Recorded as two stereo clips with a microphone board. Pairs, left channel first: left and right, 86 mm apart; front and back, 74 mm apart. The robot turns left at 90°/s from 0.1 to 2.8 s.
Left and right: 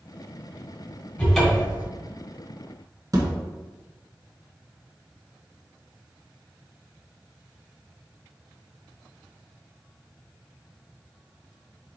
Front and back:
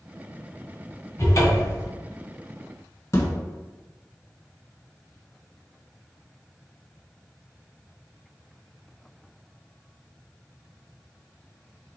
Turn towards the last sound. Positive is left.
turn(degrees=-45)